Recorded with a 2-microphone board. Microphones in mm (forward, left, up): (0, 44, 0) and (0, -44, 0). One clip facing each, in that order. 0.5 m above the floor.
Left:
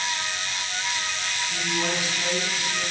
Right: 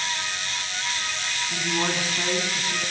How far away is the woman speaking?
About 5 m.